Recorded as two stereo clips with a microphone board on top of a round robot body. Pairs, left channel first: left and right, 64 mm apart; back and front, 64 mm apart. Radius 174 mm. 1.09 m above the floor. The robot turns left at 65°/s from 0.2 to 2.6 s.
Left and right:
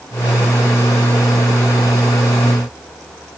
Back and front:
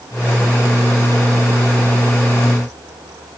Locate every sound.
Only background noise.